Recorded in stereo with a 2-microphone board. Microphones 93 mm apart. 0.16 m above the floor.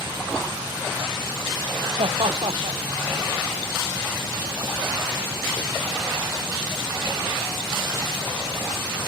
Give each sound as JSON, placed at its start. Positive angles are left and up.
{"t": 2.0, "sound": "laughter", "side_deg": -70}